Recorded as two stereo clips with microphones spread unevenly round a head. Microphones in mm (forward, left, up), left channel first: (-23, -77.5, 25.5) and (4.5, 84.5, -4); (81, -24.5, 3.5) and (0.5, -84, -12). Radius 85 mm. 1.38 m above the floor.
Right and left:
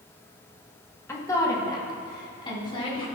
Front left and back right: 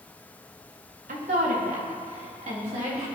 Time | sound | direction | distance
1.1 | a woman speaking | 175° right | 1.8 m